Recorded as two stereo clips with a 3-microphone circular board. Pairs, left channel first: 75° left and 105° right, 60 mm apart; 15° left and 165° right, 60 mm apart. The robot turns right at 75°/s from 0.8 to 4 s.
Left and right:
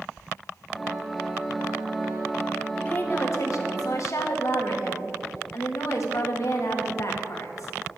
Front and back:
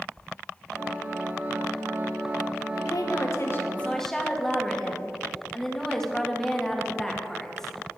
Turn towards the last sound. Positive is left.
turn(degrees=95)